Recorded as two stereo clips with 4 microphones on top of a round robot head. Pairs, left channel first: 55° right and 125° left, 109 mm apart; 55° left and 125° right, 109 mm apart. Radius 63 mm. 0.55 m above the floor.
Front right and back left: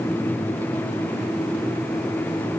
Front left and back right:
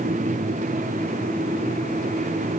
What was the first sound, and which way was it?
Only background noise.